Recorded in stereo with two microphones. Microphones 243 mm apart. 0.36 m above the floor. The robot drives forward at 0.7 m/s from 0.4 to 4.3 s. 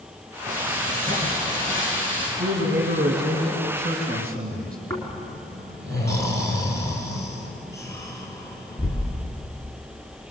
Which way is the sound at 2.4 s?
50° right (ahead or behind).